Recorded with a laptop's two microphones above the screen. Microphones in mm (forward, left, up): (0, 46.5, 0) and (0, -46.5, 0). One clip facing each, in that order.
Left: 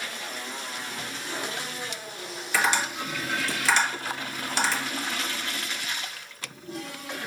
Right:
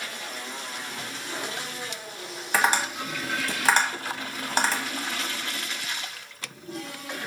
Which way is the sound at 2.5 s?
45° right (ahead or behind).